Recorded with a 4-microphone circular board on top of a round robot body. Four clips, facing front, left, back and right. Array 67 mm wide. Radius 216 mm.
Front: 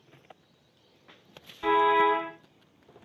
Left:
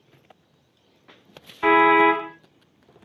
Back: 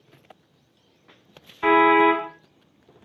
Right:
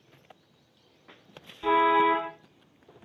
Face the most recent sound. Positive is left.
turn(degrees=125)